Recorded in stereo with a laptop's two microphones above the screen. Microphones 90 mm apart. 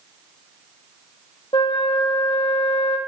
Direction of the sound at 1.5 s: 70° left (ahead or behind).